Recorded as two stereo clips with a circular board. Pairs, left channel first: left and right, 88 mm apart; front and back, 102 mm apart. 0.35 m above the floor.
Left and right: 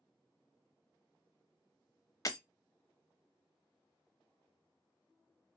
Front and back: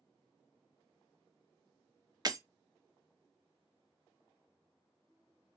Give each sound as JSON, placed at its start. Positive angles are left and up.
{"t": 2.2, "sound": "breaking glass", "azimuth_deg": 135, "distance_m": 0.5}